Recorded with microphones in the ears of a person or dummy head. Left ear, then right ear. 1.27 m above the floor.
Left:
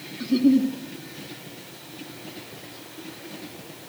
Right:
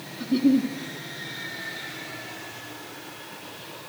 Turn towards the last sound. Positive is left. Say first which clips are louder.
# left 2 dB
turn(degrees=0)  # may be behind; listen again after turning